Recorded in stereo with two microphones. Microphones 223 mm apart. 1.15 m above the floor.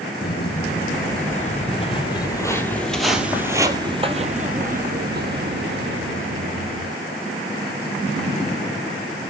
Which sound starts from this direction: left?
Footsteps, at 0.2 s.